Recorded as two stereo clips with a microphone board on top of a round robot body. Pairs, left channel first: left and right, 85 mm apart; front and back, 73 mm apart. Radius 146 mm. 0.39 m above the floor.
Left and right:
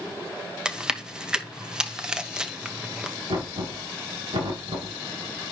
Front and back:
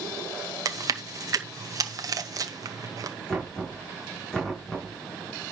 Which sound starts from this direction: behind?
Chewing, at 0.7 s.